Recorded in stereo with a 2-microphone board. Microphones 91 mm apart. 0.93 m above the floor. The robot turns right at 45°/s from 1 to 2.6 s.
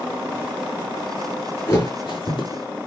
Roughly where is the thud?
Left.